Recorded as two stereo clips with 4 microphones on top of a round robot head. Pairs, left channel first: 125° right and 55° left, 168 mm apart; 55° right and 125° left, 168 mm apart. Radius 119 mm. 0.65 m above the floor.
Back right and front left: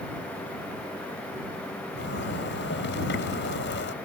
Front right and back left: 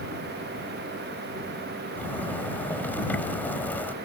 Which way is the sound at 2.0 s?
135° right.